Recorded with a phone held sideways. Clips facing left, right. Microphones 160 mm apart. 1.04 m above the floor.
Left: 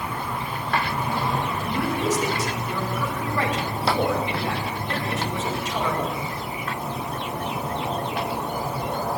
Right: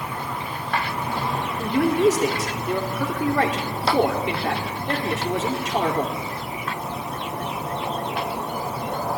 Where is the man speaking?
75° right (ahead or behind), 2.5 m.